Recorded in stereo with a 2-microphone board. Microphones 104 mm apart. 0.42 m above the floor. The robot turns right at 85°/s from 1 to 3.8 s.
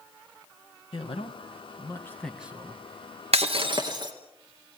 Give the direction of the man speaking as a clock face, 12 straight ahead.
10 o'clock.